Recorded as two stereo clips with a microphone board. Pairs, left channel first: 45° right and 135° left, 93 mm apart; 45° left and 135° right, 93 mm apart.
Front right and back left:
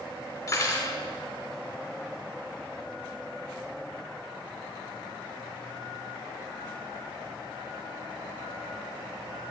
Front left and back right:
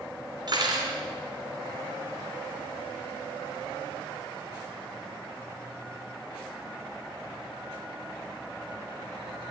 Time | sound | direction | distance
0.5 | cutlery clinking | 95° right | 2.5 m